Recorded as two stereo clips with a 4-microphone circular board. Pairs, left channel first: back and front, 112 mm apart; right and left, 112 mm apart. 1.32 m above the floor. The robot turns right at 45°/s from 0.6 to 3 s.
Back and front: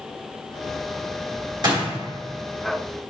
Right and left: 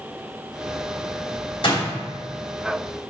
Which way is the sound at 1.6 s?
50° right.